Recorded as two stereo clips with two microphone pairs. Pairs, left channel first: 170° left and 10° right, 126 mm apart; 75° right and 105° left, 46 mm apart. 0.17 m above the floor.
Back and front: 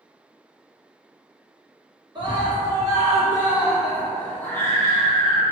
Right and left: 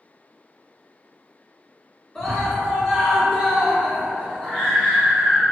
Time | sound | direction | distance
2.1 | a scream | 10° left | 1.6 m